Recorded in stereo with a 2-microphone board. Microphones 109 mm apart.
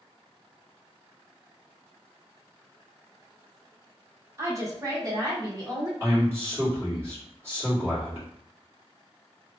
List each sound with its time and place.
4.4 s a woman speaking: 25° right (ahead or behind), 1.0 m; by 5.9 s 35° right (ahead or behind), 1.8 m
6.0 s a man speaking: 25° right (ahead or behind), 2.0 m